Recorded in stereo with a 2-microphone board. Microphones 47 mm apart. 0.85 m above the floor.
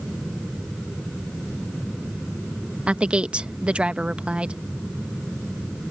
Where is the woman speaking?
25° right (ahead or behind).